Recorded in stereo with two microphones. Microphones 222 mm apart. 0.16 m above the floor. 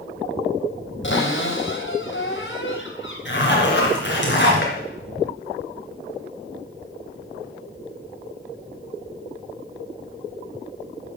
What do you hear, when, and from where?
1.0 s a cupboard door: 60° left (ahead or behind), 3.5 m
3.2 s a zipper: 55° left (ahead or behind), 2.5 m